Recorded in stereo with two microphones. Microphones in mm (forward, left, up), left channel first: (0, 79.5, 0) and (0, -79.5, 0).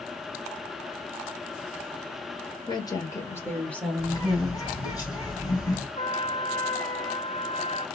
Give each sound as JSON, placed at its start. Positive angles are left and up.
{"t": 2.7, "sound": "a woman speaking", "side_deg": 30, "distance_m": 1.5}
{"t": 4.0, "sound": "a bird", "side_deg": 25, "distance_m": 3.0}
{"t": 6.0, "sound": "a trumpet", "side_deg": 40, "distance_m": 1.1}